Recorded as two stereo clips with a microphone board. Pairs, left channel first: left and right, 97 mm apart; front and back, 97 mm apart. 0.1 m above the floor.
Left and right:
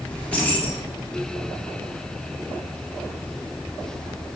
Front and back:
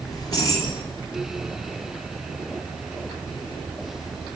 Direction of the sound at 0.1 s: 20° left.